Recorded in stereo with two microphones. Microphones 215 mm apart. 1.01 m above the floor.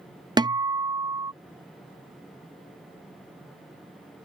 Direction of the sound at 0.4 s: 20° right (ahead or behind).